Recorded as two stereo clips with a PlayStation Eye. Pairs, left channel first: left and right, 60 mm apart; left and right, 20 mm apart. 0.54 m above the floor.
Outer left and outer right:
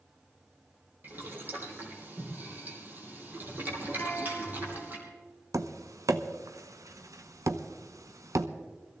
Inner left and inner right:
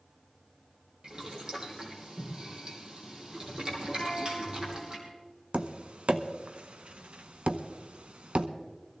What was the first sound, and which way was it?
Boiling, 30° right (ahead or behind).